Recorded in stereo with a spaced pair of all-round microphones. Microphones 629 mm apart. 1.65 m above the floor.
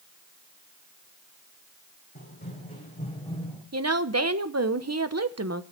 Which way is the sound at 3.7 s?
25° right (ahead or behind).